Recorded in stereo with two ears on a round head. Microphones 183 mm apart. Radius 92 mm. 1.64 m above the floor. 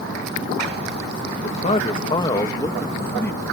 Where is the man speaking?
30° left (ahead or behind); by 3.4 s 10° left (ahead or behind).